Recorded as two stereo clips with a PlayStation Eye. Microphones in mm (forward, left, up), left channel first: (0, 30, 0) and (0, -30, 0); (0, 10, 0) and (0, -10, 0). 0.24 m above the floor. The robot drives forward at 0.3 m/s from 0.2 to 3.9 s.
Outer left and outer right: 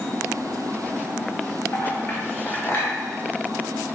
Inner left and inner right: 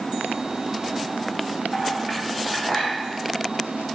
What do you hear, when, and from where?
1.7 s a clink: 35° left (ahead or behind), 0.7 m; by 2.9 s 30° left (ahead or behind), 0.8 m